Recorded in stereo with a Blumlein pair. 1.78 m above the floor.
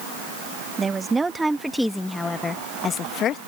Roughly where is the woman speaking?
Ahead.